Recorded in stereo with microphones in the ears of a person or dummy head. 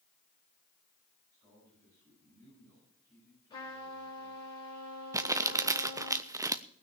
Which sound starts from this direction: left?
A trumpet, at 3.5 s.